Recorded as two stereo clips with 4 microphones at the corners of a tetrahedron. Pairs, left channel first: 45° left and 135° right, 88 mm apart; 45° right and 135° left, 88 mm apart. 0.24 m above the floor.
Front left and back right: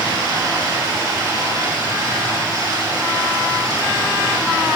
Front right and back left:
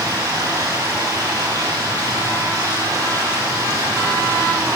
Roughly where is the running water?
Behind.